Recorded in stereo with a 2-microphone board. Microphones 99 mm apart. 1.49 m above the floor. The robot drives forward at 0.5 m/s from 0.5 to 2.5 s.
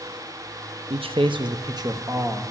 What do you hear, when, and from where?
0.9 s a man speaking: 70° right (ahead or behind), 0.5 m; by 2.4 s 30° right (ahead or behind), 1.0 m